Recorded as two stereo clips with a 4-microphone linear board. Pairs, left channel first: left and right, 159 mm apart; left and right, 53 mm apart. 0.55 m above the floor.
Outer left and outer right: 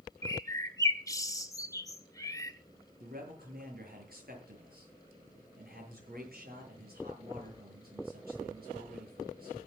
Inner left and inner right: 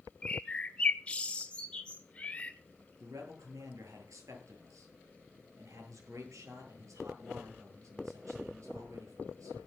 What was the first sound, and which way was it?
A bird, 20° left (ahead or behind).